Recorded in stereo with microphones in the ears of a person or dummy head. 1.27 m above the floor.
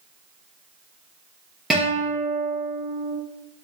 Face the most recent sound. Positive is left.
turn(degrees=0)  # may be behind; listen again after turning